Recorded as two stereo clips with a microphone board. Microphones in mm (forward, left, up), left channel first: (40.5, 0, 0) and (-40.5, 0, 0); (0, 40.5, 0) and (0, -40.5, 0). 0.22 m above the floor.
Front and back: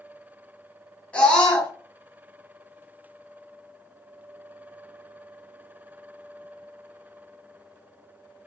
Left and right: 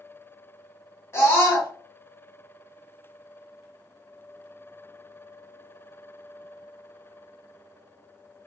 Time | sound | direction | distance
1.1 | a scream | 65° left | 1.8 m